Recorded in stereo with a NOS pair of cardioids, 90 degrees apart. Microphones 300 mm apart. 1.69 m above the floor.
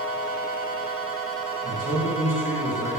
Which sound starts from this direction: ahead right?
A man speaking, at 1.6 s.